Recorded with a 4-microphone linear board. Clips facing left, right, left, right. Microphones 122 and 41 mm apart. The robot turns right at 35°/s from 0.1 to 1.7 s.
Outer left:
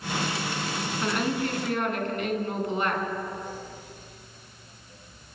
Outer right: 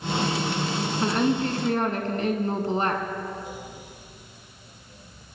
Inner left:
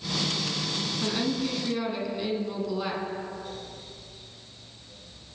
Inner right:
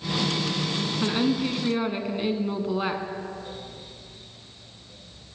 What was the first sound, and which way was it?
A woman speaking, 30° right (ahead or behind).